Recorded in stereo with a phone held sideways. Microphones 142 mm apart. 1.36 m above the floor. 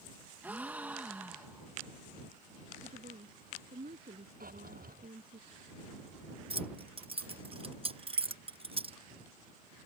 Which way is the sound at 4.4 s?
85° right.